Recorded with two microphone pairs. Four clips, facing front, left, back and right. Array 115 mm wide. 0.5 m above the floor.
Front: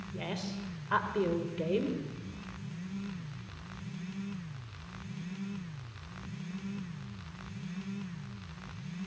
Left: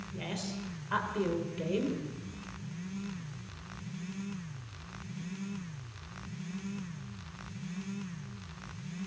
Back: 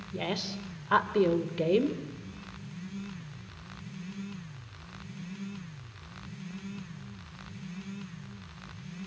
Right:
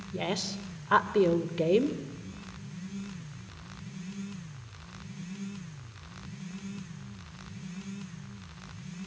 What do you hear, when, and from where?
0.1 s a woman speaking: 120° right, 2 m